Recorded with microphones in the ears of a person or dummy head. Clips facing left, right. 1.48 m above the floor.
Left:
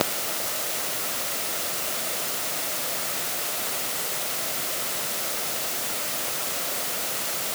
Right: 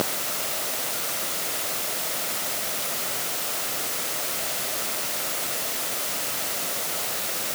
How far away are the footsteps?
No footsteps in this recording.